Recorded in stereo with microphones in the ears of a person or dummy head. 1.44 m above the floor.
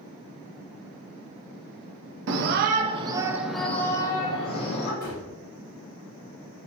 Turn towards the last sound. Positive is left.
turn(degrees=40)  # may be behind; listen again after turning